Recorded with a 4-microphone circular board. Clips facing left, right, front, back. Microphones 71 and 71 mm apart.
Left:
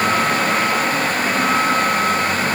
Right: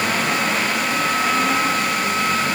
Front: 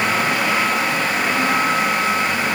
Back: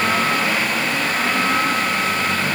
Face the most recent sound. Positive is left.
No sound to turn to.